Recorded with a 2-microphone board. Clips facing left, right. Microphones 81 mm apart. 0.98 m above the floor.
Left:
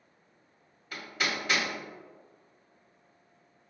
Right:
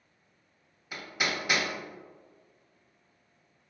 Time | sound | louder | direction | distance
0.9 | hammering | even | 10° right (ahead or behind) | 0.8 m